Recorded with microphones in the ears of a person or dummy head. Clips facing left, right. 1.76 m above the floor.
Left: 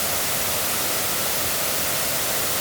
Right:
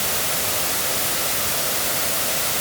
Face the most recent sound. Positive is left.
No sound to turn to.